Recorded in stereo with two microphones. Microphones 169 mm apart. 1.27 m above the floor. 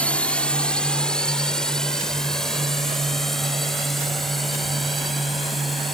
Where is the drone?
5° left (ahead or behind); by 5.9 s centre (ahead or behind).